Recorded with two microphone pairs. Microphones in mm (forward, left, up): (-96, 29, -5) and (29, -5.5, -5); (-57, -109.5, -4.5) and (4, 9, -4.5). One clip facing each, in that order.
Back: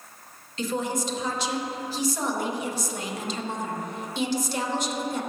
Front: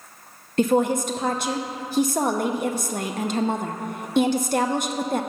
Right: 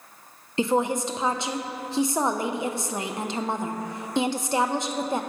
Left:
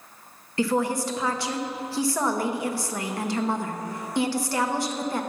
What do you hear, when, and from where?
0.6 s a woman speaking: 50° right, 0.7 m